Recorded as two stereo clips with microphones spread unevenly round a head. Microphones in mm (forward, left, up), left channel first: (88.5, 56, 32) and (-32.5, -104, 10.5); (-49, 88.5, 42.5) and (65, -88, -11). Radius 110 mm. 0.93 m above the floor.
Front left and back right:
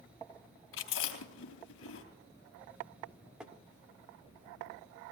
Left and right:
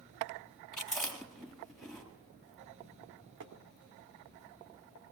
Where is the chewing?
35° left, 3.5 m.